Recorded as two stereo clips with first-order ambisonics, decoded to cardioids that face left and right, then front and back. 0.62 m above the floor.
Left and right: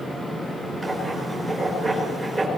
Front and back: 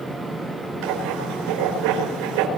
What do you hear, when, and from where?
0.8 s writing: 165° right, 5 m